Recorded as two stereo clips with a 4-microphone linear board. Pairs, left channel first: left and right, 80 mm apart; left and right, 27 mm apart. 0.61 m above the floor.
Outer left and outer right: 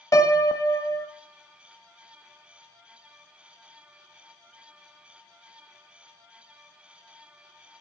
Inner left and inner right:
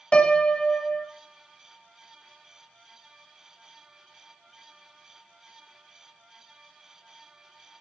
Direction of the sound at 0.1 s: 45° left (ahead or behind).